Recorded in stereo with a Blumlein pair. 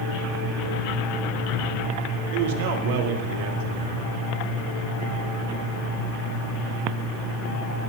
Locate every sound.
2.3 s a man speaking: 50° right, 2 m